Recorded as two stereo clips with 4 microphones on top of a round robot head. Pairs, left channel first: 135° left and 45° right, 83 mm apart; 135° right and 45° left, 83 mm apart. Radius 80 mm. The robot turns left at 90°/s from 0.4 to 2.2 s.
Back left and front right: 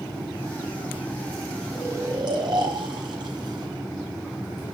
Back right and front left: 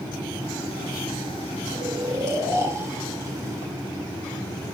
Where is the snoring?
35° left, 4.5 m; by 4.7 s 10° right, 4.5 m.